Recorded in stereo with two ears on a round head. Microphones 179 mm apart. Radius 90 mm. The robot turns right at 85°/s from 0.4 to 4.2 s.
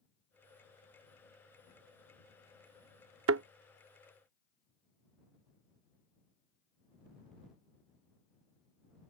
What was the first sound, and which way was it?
A thud, 75° right (ahead or behind).